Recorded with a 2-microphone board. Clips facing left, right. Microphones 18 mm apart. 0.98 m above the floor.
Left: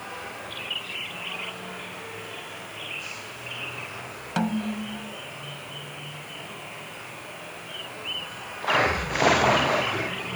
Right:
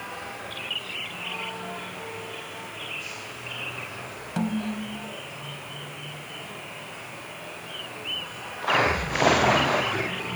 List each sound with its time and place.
4.4 s a snare drum: 30° left (ahead or behind)